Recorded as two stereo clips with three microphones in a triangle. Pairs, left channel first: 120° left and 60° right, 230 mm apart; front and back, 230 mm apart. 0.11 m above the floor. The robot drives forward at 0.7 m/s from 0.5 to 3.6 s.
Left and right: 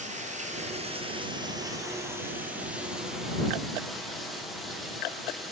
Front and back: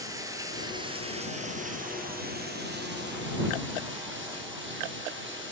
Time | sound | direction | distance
0.0 | running water | 110° right | 2.0 m